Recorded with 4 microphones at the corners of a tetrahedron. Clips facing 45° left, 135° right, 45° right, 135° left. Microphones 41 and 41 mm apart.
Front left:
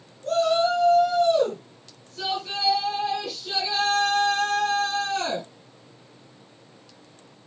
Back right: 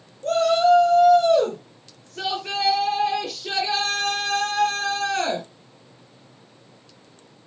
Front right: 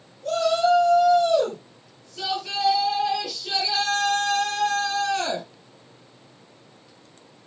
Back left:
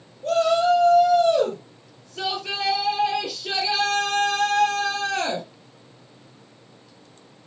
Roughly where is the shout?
Behind.